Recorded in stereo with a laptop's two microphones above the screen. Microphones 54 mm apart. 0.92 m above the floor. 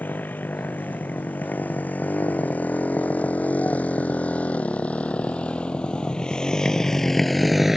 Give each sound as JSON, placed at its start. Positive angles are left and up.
{"t": 0.0, "sound": "a motorcycle", "side_deg": 35}